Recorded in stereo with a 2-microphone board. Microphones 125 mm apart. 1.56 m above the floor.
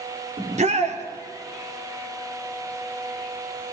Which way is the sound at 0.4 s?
65° right (ahead or behind).